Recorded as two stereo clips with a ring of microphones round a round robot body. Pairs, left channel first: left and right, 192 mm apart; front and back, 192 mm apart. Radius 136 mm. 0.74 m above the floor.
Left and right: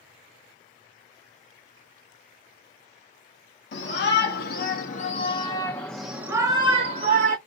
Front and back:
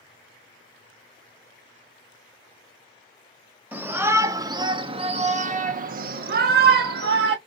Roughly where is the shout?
Left.